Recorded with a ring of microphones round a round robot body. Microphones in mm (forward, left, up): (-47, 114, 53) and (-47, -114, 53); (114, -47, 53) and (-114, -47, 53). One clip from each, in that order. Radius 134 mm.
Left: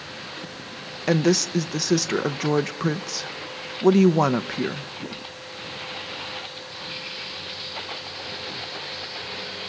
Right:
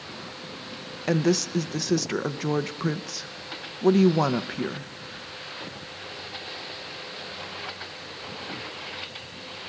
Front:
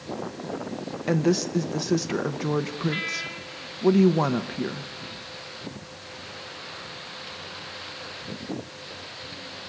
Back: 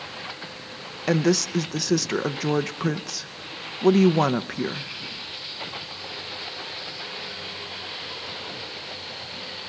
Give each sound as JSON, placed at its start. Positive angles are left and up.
{"t": 1.1, "sound": "a woman speaking", "azimuth_deg": 150, "distance_m": 0.6}